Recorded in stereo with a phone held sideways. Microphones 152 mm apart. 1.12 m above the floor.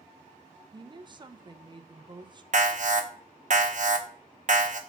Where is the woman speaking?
30° right (ahead or behind), 0.7 m.